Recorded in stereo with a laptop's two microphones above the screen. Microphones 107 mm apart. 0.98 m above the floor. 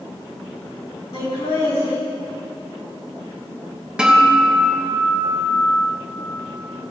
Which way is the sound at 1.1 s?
75° left (ahead or behind).